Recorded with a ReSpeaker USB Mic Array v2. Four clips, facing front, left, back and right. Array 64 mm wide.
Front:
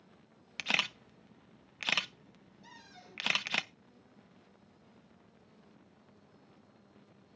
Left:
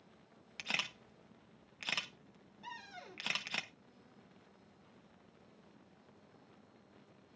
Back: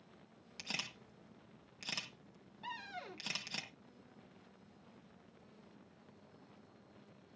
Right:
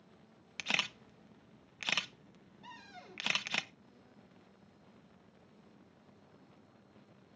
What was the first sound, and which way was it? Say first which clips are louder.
A camera shutter: right 4 dB, front 12 dB; 20° right.